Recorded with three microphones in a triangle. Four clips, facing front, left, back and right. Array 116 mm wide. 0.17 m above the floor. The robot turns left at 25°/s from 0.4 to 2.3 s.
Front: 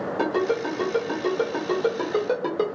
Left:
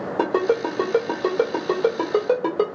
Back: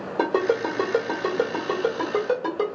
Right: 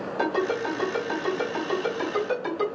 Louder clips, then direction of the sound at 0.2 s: Left 5 dB, back 3 dB; 115° left.